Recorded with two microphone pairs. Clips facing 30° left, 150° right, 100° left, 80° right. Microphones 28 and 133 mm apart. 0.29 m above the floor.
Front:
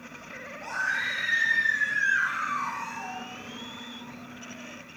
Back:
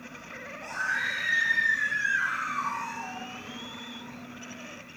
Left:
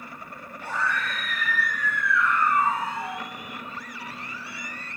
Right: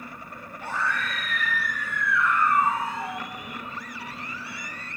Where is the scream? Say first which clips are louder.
Front 1 dB, left 1 dB; 20° right, 2.5 m; by 3.2 s 15° right, 3.5 m.